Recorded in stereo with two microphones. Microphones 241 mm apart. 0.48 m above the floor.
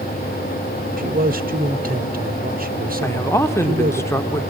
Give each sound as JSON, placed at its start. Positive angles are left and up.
{"t": 1.0, "sound": "a man speaking", "side_deg": -35, "distance_m": 1.1}
{"t": 3.0, "sound": "a man speaking", "side_deg": 10, "distance_m": 1.0}